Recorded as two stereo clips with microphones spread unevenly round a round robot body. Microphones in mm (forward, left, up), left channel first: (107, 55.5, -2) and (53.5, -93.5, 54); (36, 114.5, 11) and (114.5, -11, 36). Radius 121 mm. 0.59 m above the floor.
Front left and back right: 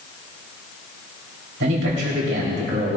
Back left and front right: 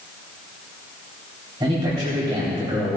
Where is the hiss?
I don't hear a hiss.